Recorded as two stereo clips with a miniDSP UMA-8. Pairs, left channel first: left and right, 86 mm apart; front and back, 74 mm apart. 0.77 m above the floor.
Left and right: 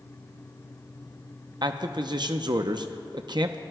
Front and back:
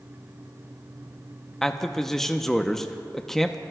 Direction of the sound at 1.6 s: 85° right.